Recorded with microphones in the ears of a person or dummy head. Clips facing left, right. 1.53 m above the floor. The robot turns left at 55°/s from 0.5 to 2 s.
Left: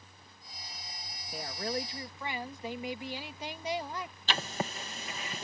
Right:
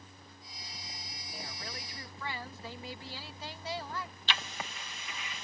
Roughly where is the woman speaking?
Ahead left.